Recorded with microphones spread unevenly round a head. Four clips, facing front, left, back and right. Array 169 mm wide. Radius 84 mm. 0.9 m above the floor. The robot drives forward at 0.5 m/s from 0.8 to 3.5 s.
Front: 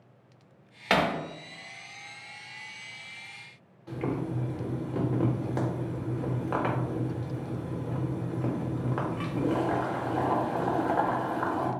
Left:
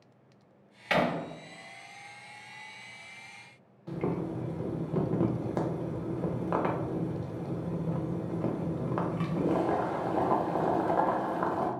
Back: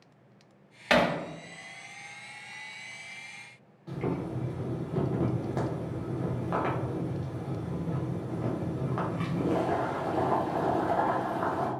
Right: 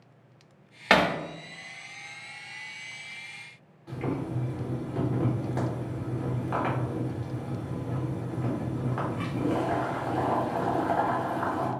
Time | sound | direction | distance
0.9 | hammering | 80° right | 0.8 m
3.9 | boiling | 95° left | 0.8 m